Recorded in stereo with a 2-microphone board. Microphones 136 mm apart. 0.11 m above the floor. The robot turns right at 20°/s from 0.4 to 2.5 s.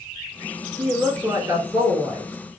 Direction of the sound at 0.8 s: 25° right (ahead or behind).